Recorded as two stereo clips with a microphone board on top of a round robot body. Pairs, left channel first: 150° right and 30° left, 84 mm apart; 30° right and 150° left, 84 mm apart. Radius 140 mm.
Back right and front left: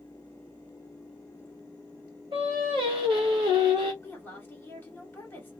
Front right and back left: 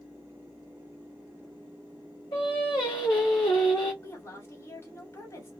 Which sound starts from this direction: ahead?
Singing, at 2.3 s.